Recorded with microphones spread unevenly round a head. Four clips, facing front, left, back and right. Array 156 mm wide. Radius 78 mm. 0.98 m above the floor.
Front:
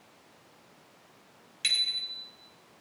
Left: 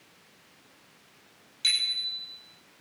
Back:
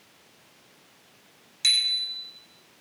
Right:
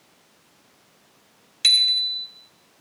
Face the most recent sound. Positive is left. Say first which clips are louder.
# right 8 dB, back 4 dB
turn(degrees=-80)